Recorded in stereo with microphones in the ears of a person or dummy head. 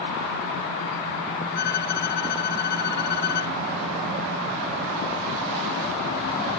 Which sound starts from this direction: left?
A violin, at 1.6 s.